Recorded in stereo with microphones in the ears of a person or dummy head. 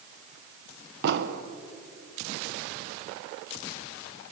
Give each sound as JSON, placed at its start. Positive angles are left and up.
{"t": 1.0, "sound": "an explosion", "side_deg": -60, "distance_m": 1.2}